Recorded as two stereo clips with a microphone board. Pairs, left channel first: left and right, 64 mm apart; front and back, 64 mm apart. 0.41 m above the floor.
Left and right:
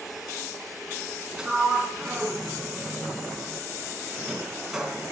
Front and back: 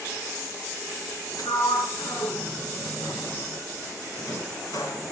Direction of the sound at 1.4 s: 10° right.